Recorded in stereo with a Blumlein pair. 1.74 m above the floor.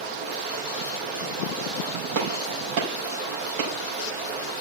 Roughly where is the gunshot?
Ahead right.